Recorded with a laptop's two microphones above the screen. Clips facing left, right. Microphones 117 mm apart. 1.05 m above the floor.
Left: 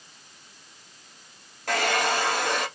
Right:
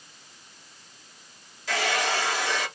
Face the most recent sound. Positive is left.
turn(degrees=55)  # may be behind; listen again after turning